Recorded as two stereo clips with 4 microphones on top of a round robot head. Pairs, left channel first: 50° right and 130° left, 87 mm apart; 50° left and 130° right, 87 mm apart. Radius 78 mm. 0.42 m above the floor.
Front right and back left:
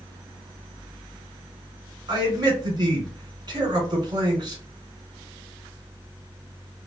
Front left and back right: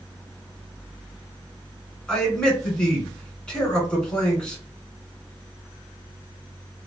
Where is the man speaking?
125° left, 1.6 m.